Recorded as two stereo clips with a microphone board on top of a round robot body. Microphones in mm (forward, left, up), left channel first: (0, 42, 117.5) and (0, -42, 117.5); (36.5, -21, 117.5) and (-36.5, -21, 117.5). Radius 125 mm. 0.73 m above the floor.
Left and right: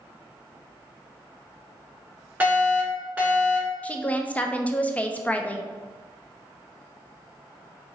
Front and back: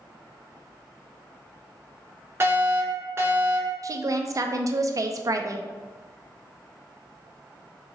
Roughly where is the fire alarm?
Behind right.